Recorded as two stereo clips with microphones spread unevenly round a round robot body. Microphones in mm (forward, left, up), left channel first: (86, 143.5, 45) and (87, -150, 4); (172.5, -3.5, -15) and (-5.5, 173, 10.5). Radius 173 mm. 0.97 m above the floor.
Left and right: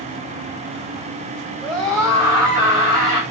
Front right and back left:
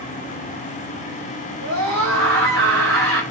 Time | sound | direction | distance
1.6 | a scream | straight behind | 4.5 m